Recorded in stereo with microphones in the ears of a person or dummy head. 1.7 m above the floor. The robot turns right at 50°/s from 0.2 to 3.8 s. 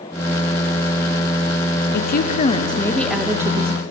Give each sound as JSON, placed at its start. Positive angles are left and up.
{"t": 1.9, "sound": "a woman speaking", "azimuth_deg": 120, "distance_m": 0.7}